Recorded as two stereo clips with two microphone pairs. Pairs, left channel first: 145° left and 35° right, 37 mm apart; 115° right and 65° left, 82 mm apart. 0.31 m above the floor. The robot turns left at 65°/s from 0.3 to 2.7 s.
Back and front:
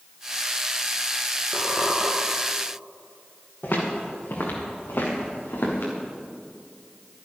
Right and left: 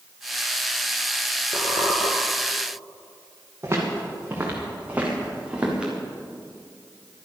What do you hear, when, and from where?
1.5 s a squeak: 95° right, 2 m; by 2.1 s 130° right, 2 m
3.6 s footsteps: 120° left, 5 m; by 5.9 s 140° left, 5 m